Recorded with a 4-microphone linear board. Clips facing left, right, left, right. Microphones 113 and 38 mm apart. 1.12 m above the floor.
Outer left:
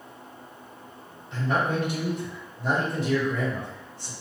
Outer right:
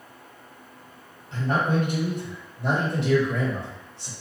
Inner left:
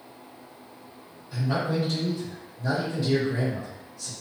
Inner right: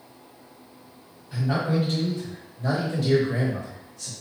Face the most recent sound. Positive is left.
turn(degrees=-75)  # may be behind; listen again after turning